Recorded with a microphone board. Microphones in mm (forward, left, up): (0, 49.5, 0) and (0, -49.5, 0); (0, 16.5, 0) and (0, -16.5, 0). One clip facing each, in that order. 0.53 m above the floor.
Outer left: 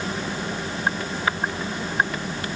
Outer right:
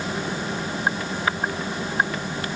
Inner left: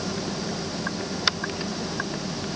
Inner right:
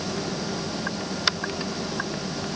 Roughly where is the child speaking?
No child speaking in this recording.